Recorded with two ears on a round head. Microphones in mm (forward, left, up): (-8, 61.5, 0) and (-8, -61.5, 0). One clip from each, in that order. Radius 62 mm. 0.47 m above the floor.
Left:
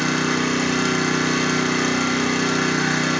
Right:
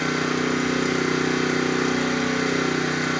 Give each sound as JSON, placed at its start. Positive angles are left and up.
{"t": 0.0, "sound": "an engine running", "side_deg": 55, "distance_m": 0.9}